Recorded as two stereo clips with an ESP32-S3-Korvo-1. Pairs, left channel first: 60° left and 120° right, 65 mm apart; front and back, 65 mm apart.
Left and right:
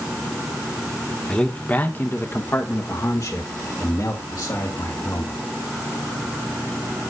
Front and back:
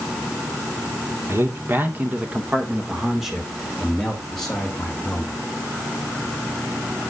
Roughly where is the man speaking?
Behind left.